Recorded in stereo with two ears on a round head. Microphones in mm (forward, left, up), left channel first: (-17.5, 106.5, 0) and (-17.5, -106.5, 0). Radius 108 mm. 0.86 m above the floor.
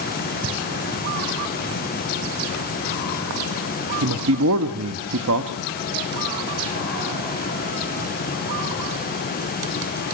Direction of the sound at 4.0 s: 65° right (ahead or behind).